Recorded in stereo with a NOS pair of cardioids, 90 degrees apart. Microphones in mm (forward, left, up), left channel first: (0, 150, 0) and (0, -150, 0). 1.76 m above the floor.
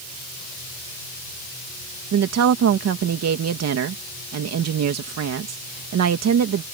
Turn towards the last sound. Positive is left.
turn(degrees=-60)